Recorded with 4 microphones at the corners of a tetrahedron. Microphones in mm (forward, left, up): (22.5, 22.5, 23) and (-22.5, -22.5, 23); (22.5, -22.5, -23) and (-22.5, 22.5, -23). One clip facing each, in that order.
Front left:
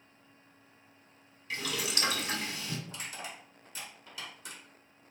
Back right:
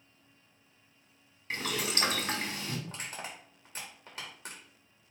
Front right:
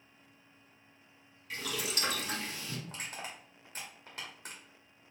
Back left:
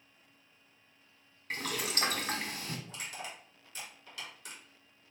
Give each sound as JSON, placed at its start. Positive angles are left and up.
{"t": 1.5, "sound": "boiling", "azimuth_deg": 175, "distance_m": 1.2}
{"t": 2.9, "sound": "crushing", "azimuth_deg": -95, "distance_m": 1.8}